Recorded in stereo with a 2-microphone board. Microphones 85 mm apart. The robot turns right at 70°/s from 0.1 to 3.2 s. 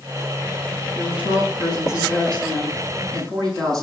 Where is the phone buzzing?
No phone buzzing in this recording.